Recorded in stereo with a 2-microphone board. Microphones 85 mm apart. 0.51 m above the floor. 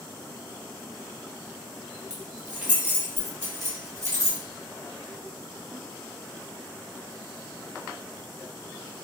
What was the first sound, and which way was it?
Keys jangling, 5° right (ahead or behind).